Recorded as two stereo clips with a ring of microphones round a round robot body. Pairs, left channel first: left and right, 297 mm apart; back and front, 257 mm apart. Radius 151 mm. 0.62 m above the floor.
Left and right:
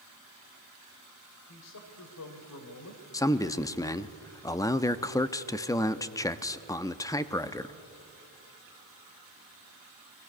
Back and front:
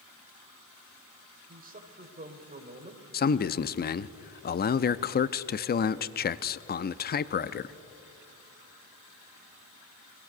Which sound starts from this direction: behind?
A man speaking, at 3.1 s.